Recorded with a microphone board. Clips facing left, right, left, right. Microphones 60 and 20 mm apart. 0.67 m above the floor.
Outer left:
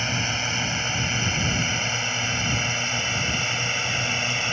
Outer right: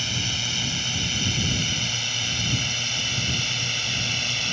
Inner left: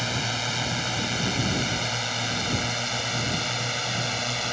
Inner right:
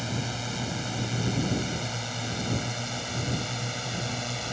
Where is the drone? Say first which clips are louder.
Outer left 4 dB, inner left 5 dB; 35° left (ahead or behind); by 4.5 s 25° left (ahead or behind).